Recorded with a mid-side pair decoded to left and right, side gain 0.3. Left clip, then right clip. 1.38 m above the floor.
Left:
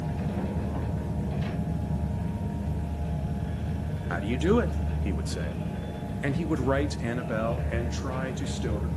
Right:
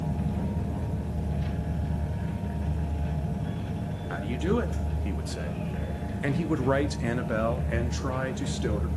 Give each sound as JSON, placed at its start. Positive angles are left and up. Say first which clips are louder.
{"t": 4.1, "sound": "a man speaking", "louder": "left 4 dB", "azimuth_deg": 50, "distance_m": 2.0}